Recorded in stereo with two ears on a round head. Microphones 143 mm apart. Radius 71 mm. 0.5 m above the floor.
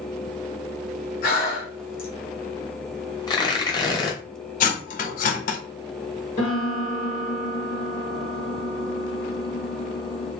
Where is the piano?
40° left (ahead or behind), 1.5 m.